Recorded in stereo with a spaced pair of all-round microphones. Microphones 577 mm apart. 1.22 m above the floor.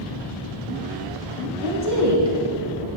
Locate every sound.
1.6 s a woman speaking: 35° right (ahead or behind), 1.8 m; by 2.9 s 50° right (ahead or behind), 1.0 m